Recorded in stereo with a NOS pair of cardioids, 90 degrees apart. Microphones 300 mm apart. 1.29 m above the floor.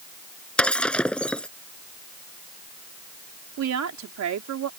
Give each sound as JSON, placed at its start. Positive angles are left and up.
{"t": 0.6, "sound": "breaking glass", "azimuth_deg": 5}
{"t": 3.6, "sound": "a woman speaking", "azimuth_deg": -60}